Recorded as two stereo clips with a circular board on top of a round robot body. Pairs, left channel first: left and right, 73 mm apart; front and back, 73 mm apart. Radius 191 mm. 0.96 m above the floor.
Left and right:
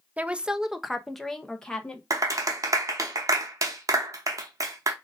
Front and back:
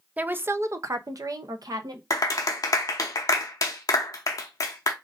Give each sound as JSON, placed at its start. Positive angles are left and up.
{"t": 0.2, "sound": "a woman speaking", "azimuth_deg": -140, "distance_m": 0.7}
{"t": 2.1, "sound": "a clap", "azimuth_deg": -45, "distance_m": 0.6}